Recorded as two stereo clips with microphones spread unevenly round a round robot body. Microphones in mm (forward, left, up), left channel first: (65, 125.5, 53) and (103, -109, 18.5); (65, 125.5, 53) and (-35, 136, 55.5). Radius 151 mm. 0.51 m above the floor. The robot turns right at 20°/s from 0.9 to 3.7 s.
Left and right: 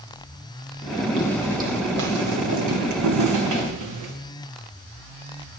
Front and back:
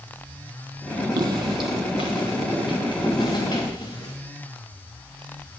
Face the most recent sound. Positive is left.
turn(degrees=-70)